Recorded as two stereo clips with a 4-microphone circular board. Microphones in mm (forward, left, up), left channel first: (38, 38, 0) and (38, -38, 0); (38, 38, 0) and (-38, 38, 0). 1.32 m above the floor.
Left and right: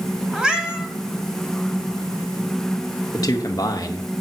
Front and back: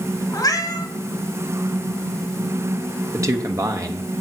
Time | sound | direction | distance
0.3 | a cat meowing | 10° right | 1.6 m
3.1 | a man speaking | 130° left | 1.1 m